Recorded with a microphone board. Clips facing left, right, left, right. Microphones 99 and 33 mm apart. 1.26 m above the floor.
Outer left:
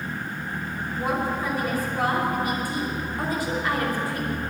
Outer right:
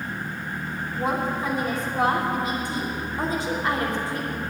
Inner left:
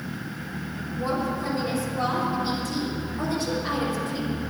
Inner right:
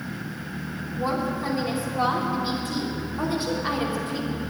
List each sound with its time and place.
1.0 s a woman speaking: 25° right (ahead or behind), 3 m